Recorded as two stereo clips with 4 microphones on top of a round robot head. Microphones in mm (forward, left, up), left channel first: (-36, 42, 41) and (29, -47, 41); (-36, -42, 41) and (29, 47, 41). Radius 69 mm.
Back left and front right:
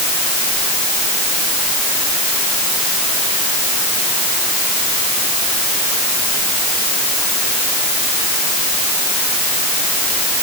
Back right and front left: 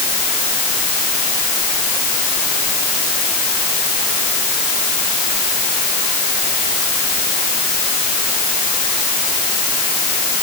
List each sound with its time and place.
Only background noise.